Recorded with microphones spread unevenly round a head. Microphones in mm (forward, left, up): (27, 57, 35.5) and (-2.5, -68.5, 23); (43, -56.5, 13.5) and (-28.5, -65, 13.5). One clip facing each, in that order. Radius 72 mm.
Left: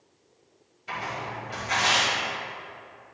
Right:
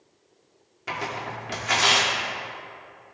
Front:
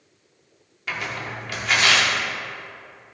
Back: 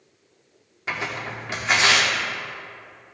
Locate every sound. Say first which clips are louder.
0.9 s tearing paper: right 2 dB, back 1 dB; 110° right, 2 m